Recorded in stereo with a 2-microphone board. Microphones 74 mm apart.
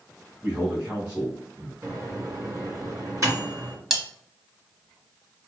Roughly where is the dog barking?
I don't hear a dog barking.